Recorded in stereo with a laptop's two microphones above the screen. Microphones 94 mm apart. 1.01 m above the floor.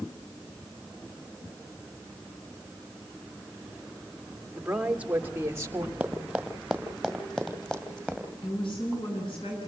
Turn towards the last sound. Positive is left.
turn(degrees=65)  # may be behind; listen again after turning